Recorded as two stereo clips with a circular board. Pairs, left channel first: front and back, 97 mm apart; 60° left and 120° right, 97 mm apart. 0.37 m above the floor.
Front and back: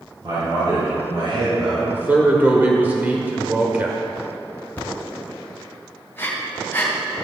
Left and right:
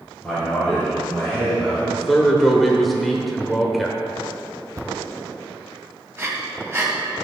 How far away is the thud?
About 0.7 m.